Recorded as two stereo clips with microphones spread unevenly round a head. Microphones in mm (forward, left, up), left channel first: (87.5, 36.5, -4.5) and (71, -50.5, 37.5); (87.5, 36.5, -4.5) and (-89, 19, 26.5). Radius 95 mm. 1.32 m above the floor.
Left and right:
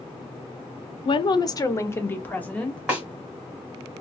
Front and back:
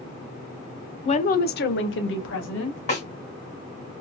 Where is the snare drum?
55° right, 1.7 m.